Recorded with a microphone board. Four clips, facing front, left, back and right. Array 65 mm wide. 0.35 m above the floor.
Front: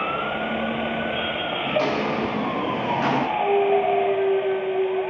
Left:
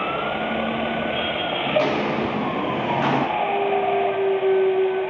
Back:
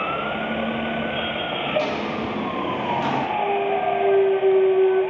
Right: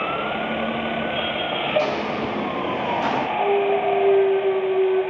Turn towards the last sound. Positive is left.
turn(degrees=150)